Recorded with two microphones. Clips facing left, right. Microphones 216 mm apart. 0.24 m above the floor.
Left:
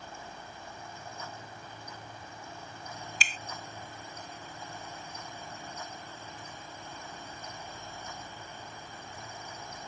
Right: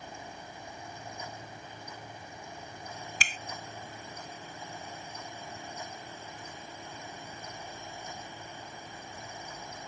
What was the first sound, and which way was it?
A finger snap, 55° right (ahead or behind).